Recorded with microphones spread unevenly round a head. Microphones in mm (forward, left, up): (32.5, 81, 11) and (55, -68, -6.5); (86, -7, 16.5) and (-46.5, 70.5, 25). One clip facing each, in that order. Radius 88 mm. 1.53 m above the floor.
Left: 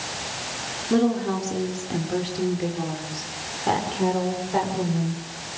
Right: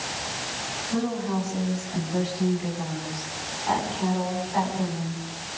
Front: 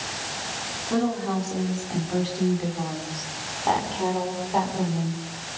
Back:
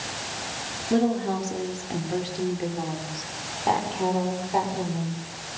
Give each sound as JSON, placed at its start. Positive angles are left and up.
{"t": 0.9, "sound": "a woman speaking", "azimuth_deg": 85, "distance_m": 5.0}